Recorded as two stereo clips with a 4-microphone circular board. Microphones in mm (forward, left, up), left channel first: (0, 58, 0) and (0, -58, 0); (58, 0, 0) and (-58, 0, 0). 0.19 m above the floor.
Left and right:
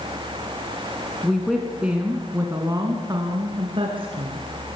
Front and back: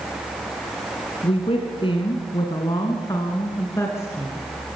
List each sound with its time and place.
1.2 s a woman speaking: 5° left, 2 m; by 4.4 s 70° right, 2.5 m